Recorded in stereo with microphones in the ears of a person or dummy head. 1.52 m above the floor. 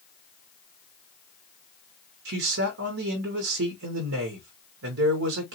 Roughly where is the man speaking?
Right.